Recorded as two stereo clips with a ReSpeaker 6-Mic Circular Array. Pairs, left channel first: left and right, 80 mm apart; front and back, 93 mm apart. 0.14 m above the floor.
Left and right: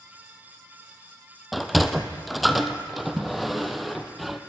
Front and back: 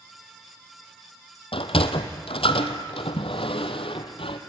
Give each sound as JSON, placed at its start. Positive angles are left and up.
{"t": 1.5, "sound": "a sliding door", "azimuth_deg": 0, "distance_m": 1.3}